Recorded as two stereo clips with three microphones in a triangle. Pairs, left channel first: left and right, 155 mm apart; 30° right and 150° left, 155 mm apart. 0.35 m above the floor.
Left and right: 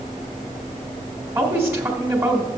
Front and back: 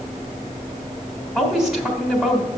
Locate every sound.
1.4 s a woman speaking: 125° right, 1.4 m